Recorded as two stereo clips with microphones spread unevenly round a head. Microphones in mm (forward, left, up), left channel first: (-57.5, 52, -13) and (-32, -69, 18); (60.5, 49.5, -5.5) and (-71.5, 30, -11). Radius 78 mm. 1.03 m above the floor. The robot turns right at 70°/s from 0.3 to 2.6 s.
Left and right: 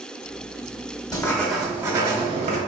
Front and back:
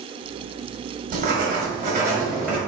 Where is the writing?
170° left, 1.4 m; by 2.6 s 90° right, 1.4 m.